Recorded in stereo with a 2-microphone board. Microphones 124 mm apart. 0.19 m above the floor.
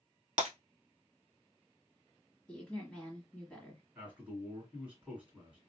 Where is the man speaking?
10° right (ahead or behind), 1.9 m.